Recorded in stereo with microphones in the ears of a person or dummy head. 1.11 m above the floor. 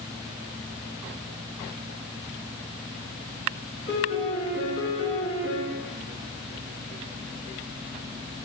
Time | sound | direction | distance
3.9 | a piano | 65° left (ahead or behind) | 3 m